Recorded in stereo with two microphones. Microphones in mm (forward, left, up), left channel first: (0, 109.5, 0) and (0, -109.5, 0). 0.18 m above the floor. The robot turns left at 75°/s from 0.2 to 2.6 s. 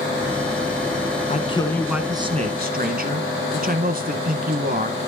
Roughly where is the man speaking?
Ahead left.